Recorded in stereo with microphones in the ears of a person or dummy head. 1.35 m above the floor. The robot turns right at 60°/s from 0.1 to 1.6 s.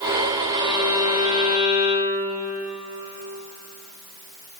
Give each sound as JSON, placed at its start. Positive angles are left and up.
{"t": 0.5, "sound": "a violin", "azimuth_deg": 15, "distance_m": 5.0}